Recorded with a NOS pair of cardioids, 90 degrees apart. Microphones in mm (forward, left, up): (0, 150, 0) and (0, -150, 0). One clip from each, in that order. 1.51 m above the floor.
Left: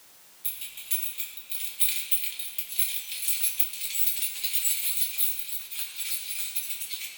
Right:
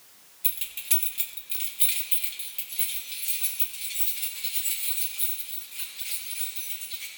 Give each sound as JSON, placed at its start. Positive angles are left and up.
{"t": 0.4, "sound": "keys jangling", "azimuth_deg": -55, "distance_m": 1.6}